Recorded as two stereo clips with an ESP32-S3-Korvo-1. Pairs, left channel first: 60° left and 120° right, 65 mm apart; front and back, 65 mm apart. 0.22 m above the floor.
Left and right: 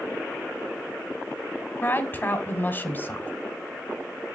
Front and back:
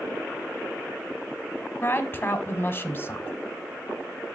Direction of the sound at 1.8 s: 25° left.